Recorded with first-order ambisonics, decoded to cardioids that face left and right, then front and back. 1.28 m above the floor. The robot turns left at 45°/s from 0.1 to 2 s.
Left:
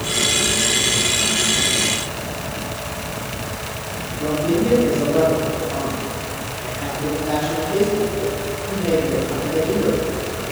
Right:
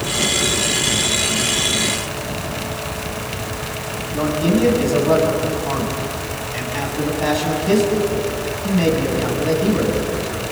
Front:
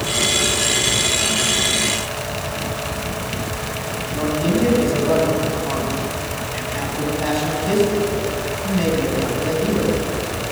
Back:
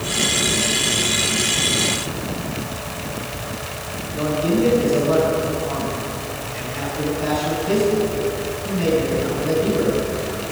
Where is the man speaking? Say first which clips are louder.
Right 1 dB, back 1 dB; 65° right, 8.5 m.